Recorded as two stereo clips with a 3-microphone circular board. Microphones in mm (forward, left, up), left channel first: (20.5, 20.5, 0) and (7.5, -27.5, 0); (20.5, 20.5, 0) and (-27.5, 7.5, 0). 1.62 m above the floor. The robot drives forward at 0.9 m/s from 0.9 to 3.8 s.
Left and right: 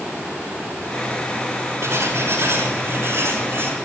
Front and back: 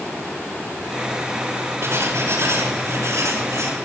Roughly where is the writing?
Behind right.